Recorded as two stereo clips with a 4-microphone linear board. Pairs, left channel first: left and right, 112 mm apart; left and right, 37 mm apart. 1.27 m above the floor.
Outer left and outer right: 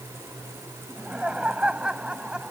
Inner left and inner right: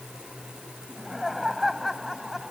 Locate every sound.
0.9 s laughter: 10° right (ahead or behind); by 2.5 s 5° right (ahead or behind)